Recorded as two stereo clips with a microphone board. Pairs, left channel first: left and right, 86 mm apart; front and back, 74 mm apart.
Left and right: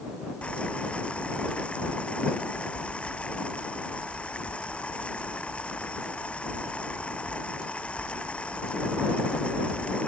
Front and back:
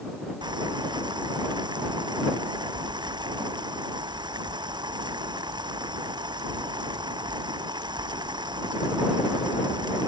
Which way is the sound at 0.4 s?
165° left.